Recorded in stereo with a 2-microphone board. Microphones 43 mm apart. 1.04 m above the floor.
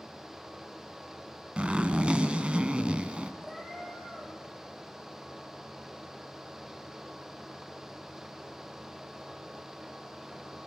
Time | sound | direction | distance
1.6 | a zipper | 25° right (ahead or behind) | 1.8 m
3.4 | a cat meowing | 10° left (ahead or behind) | 10 m